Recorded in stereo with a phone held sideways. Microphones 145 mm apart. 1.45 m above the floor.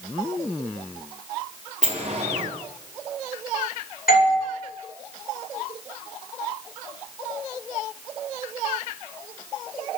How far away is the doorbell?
About 8.5 m.